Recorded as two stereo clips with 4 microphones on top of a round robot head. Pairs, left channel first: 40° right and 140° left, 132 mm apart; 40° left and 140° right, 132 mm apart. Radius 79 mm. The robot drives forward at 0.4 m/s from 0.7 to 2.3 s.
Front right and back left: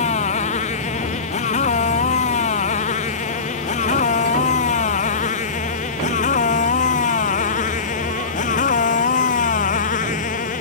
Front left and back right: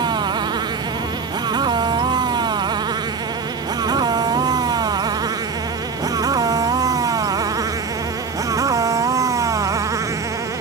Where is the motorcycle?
80° right; by 10.6 s 70° right.